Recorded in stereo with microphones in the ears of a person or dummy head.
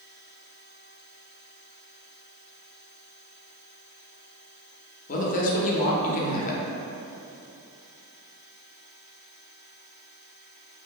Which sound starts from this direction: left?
A woman speaking, at 5.1 s.